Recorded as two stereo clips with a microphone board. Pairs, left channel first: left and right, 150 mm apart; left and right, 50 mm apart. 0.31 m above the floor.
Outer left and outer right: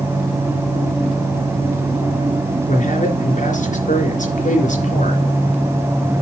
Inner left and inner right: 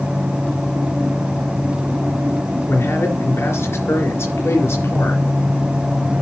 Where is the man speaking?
60° left (ahead or behind), 3.5 m.